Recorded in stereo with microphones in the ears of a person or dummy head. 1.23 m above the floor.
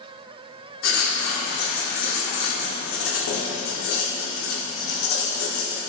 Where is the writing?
75° left (ahead or behind), 1.8 m.